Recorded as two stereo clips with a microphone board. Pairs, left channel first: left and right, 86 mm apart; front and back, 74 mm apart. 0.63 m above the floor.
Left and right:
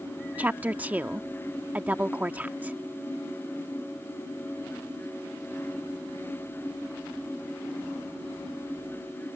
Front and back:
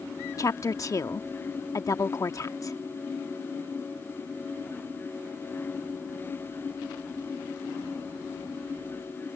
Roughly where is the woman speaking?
Ahead right.